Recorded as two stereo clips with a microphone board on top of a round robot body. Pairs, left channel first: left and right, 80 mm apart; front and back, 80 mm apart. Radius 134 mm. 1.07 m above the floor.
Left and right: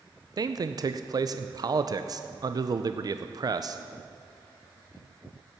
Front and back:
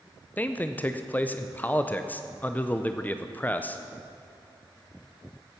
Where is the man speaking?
65° right, 0.6 m.